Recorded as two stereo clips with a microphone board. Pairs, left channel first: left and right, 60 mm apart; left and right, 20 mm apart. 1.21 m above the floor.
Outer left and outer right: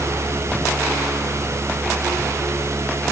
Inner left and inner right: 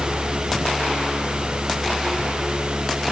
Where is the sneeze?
I don't hear a sneeze.